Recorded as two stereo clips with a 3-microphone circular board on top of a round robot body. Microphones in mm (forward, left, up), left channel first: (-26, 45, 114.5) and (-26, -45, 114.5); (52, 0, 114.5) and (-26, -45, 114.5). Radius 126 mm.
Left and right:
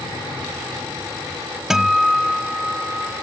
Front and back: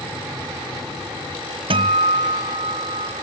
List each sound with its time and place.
1.7 s a guitar: 175° right